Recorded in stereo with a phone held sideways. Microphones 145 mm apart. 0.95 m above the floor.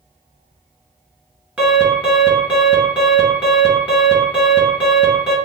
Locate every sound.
1.6 s an alarm: 10° right (ahead or behind), 1.9 m